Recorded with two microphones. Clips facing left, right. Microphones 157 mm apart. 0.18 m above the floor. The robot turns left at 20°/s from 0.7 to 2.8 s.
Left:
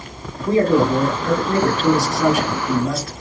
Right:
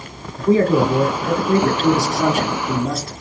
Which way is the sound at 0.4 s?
5° right (ahead or behind).